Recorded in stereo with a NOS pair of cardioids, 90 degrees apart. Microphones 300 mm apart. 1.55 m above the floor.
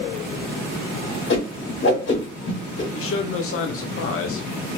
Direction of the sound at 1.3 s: 40° left.